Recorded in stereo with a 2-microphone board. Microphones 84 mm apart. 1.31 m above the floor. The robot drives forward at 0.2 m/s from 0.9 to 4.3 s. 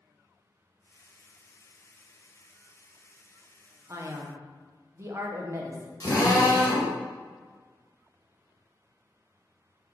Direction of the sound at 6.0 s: 45° left (ahead or behind).